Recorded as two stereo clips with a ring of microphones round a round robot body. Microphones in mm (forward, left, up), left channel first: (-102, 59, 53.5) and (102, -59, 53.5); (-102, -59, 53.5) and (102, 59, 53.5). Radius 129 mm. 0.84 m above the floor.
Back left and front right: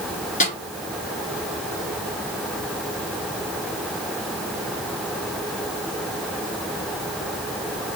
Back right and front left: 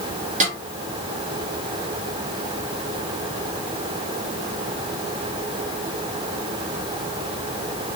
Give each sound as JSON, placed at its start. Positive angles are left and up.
{"t": 0.4, "sound": "a snare drum", "azimuth_deg": 90, "distance_m": 2.0}